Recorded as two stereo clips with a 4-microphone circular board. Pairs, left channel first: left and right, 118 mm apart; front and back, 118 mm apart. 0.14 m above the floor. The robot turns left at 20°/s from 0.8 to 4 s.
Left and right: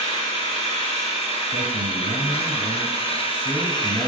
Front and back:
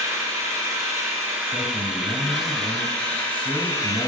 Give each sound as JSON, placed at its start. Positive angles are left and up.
{"t": 0.0, "sound": "an engine running", "azimuth_deg": 120, "distance_m": 1.5}
{"t": 1.5, "sound": "a man speaking", "azimuth_deg": -100, "distance_m": 2.0}